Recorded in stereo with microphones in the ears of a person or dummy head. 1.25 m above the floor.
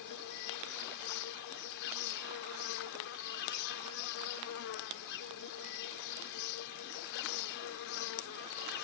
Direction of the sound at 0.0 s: 65° left (ahead or behind).